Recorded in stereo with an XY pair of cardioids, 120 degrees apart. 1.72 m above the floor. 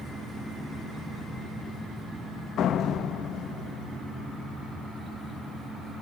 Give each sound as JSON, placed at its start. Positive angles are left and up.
{"t": 2.6, "sound": "a door slam", "azimuth_deg": 65, "distance_m": 1.9}